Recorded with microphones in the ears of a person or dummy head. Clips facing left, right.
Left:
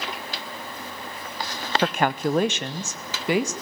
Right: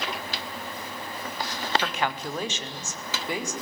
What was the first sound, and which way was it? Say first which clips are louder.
A woman speaking: left 7 dB; 35° left (ahead or behind).